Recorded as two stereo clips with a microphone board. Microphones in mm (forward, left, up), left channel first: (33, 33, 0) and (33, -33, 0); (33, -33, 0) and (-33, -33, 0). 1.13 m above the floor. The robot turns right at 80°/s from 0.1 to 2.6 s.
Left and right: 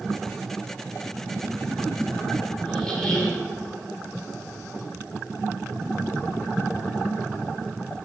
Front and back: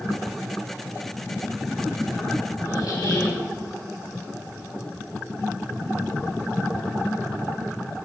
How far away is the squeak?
About 1.8 m.